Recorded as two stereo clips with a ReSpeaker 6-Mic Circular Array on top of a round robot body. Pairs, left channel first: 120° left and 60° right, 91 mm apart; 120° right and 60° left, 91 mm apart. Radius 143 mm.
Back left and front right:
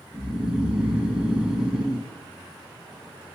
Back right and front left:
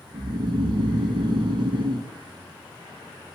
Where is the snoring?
20° left, 0.6 m.